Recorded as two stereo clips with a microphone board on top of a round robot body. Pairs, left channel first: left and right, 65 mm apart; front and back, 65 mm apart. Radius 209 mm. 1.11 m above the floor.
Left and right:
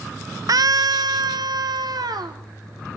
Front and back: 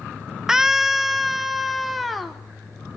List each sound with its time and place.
0.5 s a scream: 100° right, 0.5 m; by 2.4 s 90° right, 1.7 m